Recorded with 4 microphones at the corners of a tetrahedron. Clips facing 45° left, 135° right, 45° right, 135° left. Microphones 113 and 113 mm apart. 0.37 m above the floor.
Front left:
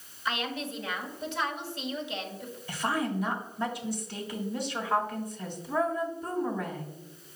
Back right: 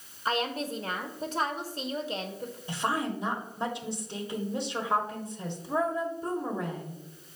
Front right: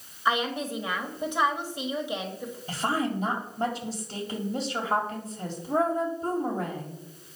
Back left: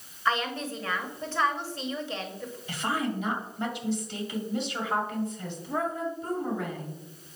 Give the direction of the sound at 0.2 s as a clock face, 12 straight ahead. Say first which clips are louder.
Back right 3 dB, front right 2 dB; 4 o'clock.